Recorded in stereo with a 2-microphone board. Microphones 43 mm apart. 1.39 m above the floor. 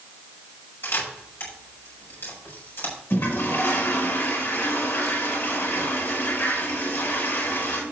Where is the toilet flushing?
60° left (ahead or behind), 6.5 m.